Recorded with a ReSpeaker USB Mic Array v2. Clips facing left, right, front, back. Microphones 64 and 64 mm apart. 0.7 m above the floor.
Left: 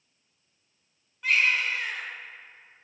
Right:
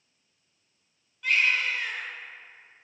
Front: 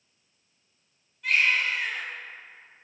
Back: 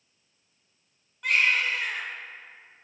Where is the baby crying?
160° left, 1.9 m.